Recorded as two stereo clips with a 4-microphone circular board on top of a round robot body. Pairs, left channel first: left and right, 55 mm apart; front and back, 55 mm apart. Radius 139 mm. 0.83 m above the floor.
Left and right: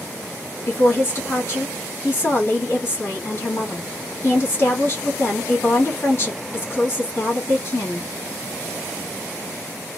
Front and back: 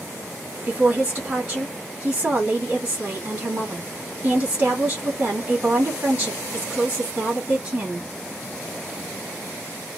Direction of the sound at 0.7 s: 130° left.